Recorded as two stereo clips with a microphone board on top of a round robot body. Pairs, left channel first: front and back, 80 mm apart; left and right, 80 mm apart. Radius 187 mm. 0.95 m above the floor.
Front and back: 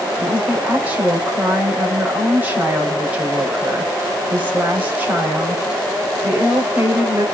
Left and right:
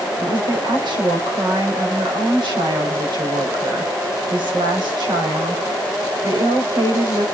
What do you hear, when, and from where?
0.2 s a woman speaking: 110° right, 5.5 m